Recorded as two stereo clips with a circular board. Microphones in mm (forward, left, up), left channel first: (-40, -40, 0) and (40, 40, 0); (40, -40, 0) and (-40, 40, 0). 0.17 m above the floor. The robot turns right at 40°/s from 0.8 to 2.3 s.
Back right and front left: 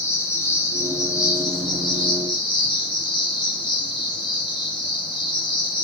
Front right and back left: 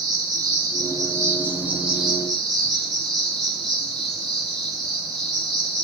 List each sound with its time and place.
0.0 s an insect: 170° left, 1.2 m; by 5.8 s 130° right, 1.2 m